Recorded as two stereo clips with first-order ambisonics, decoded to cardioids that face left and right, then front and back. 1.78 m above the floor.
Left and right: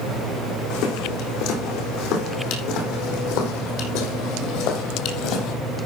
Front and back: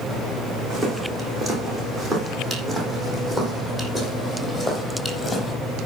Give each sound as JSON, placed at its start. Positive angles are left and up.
{"t": 0.7, "sound": "footsteps", "azimuth_deg": 110, "distance_m": 6.0}